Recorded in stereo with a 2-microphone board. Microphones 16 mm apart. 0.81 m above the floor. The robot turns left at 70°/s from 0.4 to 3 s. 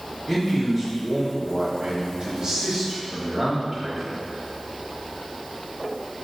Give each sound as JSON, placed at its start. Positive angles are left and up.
{"t": 0.3, "sound": "a man speaking", "azimuth_deg": 10, "distance_m": 1.3}